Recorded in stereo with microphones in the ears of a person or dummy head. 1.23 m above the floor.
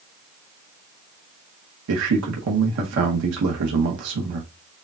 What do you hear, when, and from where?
1.9 s a man speaking: 65° right (ahead or behind), 0.9 m